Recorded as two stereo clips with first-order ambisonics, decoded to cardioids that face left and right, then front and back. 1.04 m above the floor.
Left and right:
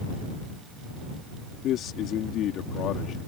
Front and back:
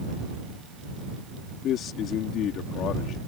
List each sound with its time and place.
1.6 s a man speaking: 45° left